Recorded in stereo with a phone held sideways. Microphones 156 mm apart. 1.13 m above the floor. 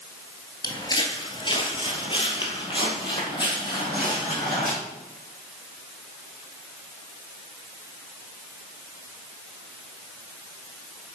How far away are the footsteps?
About 1.2 m.